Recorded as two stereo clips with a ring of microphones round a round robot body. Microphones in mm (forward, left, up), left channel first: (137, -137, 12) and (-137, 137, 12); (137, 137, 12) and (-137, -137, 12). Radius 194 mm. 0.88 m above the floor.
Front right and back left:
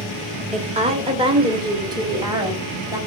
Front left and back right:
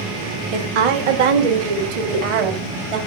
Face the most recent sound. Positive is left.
turn(degrees=-145)